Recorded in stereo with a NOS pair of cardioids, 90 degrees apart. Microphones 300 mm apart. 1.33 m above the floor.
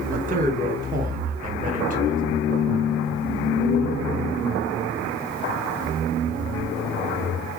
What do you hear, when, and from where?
0.1 s a man speaking: 25° right, 1.3 m